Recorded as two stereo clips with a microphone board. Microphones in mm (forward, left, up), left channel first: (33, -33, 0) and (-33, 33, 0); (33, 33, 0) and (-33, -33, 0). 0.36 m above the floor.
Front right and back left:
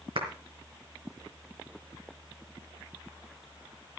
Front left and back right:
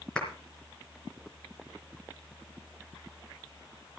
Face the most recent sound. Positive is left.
turn(degrees=125)